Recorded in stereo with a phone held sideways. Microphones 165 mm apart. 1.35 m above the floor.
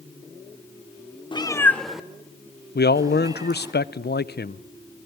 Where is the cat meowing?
30° left (ahead or behind), 1.1 m; by 3.7 s 25° right (ahead or behind), 4 m.